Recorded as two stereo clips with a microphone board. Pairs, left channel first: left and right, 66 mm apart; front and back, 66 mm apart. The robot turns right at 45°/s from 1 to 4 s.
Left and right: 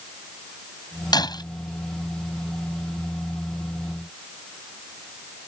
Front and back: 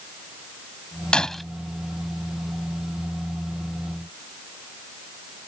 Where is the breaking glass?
75° left; by 1.4 s 90° left.